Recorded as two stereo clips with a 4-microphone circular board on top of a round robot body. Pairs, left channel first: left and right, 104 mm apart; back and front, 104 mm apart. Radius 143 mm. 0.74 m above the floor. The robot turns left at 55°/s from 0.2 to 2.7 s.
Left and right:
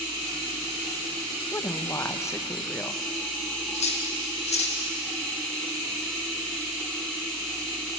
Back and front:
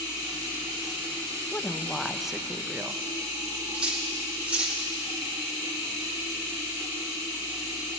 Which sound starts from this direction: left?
Cutlery clinking, at 3.7 s.